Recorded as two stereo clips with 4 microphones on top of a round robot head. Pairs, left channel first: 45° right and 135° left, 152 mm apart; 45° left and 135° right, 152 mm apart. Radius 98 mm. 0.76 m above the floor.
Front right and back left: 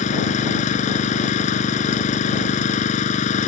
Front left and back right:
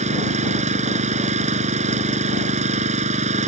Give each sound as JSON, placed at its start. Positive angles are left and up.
{"t": 0.0, "sound": "an engine running", "azimuth_deg": -90}